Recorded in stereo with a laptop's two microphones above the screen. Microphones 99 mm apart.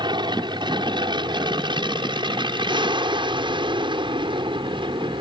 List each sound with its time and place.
0.0 s an aircraft: 55° right (ahead or behind); by 5.2 s 60° right (ahead or behind)